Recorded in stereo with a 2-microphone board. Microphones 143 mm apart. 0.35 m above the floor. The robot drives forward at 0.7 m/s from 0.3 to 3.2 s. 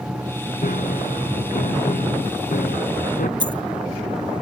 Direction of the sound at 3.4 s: 35° right (ahead or behind).